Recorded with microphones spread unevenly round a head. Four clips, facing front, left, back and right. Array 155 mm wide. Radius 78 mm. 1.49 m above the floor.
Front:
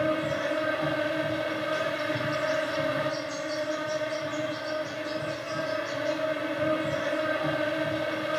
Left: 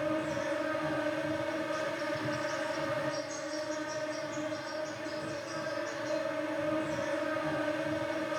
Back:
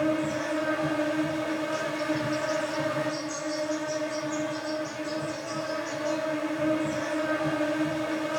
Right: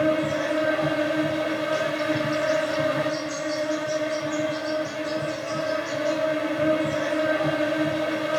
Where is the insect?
80° right, 4.5 m.